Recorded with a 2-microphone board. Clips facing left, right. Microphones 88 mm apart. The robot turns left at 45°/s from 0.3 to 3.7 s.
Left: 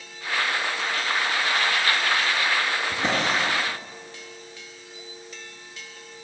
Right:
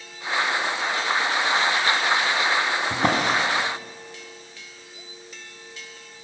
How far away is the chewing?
No chewing in this recording.